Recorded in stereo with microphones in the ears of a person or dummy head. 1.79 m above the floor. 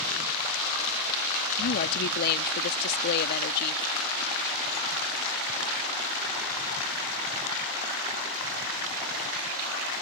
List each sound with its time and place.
1.6 s a woman speaking: 55° left (ahead or behind)